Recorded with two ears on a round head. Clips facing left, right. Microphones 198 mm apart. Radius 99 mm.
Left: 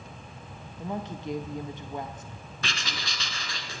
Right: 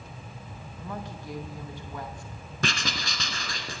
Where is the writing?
40° right (ahead or behind), 1.5 m.